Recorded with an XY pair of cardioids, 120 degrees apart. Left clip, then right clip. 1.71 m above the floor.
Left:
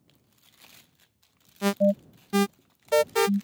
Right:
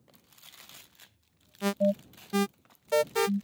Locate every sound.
1.6 s an alarm: 20° left